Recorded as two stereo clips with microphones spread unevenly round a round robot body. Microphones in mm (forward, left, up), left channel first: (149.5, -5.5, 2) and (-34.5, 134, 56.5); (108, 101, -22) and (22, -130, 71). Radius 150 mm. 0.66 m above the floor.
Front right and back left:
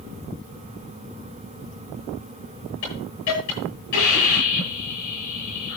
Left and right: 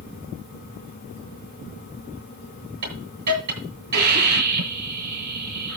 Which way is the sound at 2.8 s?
105° right.